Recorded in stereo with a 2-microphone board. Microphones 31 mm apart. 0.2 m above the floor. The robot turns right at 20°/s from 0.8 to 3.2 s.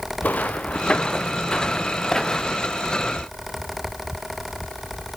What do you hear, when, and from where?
0.2 s footsteps: 55° left (ahead or behind), 1.4 m; by 2.8 s 10° left (ahead or behind), 1.8 m